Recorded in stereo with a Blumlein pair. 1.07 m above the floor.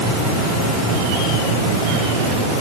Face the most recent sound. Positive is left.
No sound to turn to.